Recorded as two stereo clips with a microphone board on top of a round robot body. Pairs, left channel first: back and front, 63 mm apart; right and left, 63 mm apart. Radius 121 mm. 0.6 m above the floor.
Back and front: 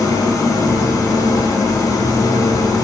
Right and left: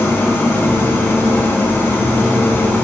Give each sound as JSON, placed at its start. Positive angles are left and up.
{"t": 0.0, "sound": "an engine running", "azimuth_deg": -145, "distance_m": 3.0}